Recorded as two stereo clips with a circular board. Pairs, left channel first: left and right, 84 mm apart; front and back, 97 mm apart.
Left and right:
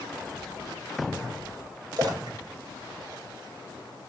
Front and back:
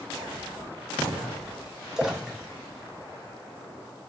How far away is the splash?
About 0.5 m.